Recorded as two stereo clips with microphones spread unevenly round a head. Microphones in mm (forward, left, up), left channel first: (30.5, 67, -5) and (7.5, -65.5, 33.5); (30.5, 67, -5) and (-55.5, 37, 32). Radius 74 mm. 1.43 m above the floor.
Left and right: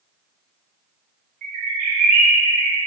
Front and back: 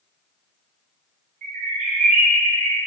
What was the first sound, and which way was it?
A bird, 145° right.